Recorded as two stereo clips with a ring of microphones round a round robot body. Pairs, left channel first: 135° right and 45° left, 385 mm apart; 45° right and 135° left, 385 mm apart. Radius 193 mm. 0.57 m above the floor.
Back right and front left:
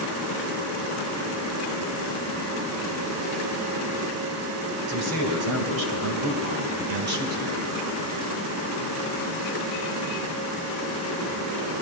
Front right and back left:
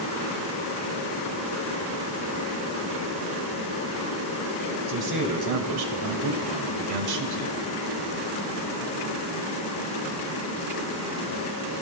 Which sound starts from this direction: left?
A man speaking, at 4.9 s.